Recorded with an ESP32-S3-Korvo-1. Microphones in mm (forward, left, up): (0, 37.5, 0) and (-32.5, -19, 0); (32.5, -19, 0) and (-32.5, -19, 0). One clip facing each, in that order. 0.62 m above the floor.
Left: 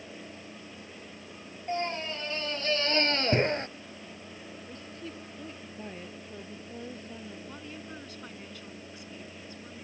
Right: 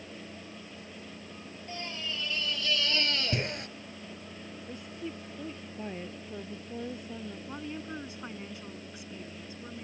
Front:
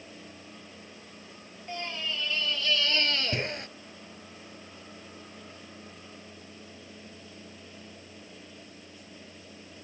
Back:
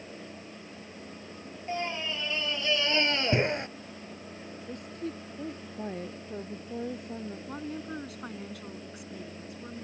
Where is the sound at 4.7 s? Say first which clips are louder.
Right 4 dB, back 10 dB; 160° left.